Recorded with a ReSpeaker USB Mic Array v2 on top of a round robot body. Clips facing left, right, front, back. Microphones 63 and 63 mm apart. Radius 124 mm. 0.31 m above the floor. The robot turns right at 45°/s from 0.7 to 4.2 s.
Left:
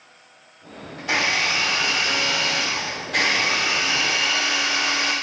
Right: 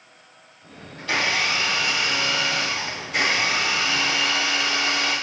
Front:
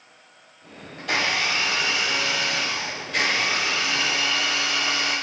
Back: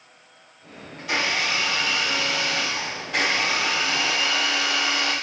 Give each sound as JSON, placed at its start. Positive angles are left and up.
{"t": 1.0, "sound": "a blender", "azimuth_deg": 15, "distance_m": 2.5}